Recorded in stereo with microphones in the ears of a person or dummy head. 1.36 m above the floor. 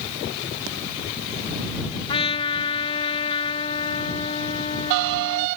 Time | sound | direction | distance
2.1 | a trumpet | 30° left (ahead or behind) | ?